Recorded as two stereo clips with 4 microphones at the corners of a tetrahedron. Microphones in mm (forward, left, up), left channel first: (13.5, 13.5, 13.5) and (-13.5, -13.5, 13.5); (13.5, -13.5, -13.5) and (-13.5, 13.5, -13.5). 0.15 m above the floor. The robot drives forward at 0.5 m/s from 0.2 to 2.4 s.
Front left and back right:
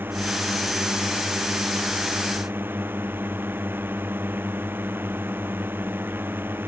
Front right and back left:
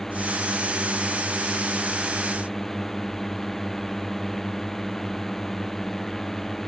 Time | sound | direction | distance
0.0 | a drone | 120° right | ?